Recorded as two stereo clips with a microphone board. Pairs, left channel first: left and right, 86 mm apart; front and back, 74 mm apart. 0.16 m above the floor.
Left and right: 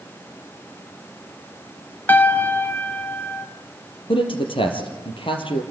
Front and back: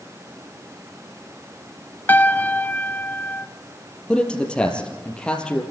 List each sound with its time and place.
2.1 s a piano: 40° left, 1.0 m
4.1 s a man speaking: 75° left, 4 m